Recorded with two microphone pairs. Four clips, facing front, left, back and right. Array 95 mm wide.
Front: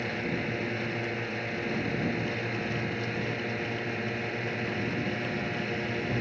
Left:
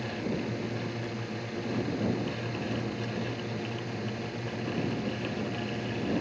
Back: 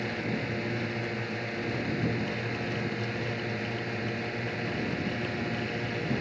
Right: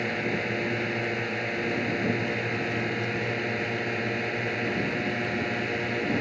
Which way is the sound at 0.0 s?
85° right.